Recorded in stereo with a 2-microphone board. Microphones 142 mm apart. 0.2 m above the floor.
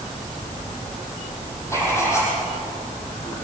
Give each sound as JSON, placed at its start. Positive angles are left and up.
{"t": 1.7, "sound": "writing", "side_deg": 20, "distance_m": 7.0}